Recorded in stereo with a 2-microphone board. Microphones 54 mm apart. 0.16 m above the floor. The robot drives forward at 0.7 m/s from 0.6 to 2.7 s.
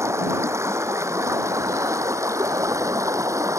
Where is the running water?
65° right (ahead or behind); by 3.6 s 75° right (ahead or behind).